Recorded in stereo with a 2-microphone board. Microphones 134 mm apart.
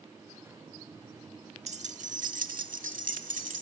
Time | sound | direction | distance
1.7 | keys jangling | 50° right (ahead or behind) | 1.0 m